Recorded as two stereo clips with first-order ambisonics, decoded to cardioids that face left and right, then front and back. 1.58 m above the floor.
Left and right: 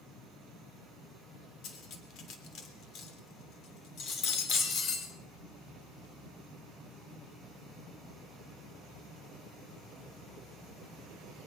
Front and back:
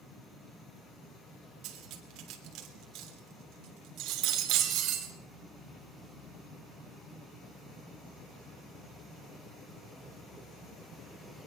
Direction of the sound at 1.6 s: 140° left.